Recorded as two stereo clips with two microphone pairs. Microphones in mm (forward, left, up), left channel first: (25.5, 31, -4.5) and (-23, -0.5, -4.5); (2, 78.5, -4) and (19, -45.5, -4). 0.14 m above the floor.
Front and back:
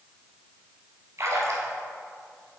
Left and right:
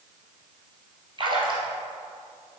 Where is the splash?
125° right, 1.1 m.